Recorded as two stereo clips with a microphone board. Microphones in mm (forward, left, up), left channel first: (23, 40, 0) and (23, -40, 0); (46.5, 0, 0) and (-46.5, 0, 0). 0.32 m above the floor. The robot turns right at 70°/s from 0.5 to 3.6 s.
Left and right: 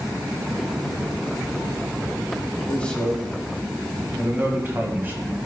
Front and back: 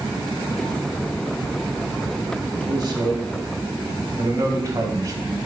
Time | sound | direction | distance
2.7 | a man speaking | 150° left | 1.5 m